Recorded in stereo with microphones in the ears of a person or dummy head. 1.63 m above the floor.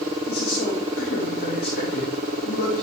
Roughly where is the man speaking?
Left.